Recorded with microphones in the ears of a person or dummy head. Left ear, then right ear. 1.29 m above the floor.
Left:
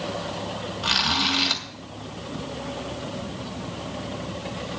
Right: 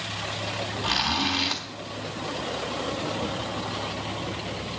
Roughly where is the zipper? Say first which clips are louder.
Left 4 dB; left.